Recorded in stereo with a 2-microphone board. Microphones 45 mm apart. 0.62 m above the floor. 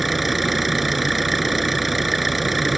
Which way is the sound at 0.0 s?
Centre (ahead or behind).